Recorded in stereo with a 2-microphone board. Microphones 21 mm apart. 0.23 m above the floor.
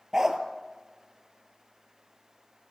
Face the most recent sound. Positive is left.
turn(degrees=-30)  # may be behind; listen again after turning